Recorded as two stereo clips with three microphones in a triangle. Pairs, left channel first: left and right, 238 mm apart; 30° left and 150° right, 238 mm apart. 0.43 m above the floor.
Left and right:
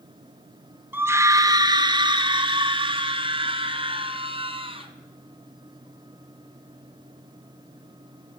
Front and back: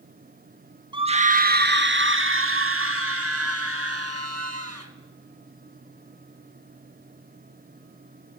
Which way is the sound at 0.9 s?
155° right.